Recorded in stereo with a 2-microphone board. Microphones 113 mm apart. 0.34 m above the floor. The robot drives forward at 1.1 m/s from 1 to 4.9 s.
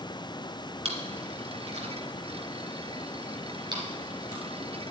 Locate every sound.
0.8 s chewing: 65° right (ahead or behind), 2.5 m; by 4.4 s 35° right (ahead or behind), 3.5 m